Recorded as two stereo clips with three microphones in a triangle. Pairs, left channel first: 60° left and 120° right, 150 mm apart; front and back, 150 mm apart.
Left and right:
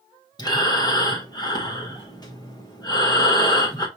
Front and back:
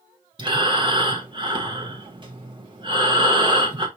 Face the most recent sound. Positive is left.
turn(degrees=120)